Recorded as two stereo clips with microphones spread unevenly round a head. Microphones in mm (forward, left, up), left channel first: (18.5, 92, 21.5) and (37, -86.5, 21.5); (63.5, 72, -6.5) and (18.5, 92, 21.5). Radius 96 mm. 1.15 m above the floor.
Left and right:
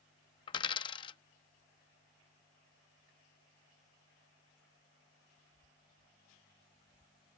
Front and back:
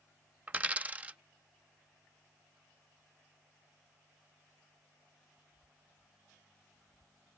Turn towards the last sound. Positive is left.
turn(degrees=155)